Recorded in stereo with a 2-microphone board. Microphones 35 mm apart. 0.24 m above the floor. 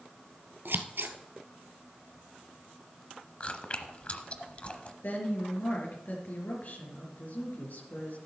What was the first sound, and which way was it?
Scissors, 85° right.